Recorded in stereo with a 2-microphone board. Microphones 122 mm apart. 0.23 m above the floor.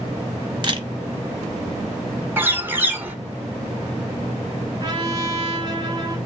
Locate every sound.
0.6 s a camera shutter: 40° right (ahead or behind), 0.7 m
2.4 s a bird: 15° right (ahead or behind), 0.7 m
4.8 s a trumpet: 35° right (ahead or behind), 1.0 m